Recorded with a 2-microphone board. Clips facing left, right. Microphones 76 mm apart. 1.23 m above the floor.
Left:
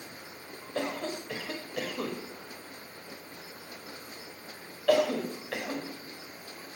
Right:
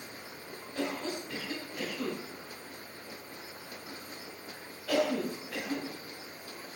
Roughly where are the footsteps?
No footsteps in this recording.